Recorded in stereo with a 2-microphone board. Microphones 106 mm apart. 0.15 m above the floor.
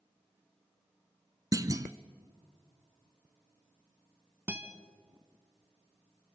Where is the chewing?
I don't hear chewing.